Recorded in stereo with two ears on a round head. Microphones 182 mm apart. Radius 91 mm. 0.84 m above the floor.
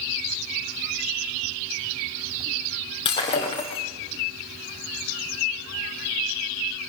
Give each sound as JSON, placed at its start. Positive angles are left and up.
{"t": 3.0, "sound": "breaking glass", "side_deg": 25, "distance_m": 5.0}